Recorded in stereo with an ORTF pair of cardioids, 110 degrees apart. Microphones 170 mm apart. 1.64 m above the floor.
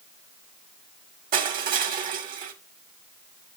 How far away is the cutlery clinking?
No cutlery clinking in this recording.